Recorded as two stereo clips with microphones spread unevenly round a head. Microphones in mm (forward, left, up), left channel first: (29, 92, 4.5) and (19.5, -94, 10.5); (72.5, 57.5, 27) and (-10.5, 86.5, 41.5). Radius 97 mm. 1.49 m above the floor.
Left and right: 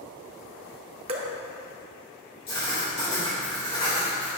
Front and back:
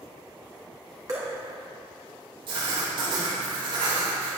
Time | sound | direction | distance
1.1 | dripping | 145° right | 1.0 m
2.5 | writing | 150° left | 4 m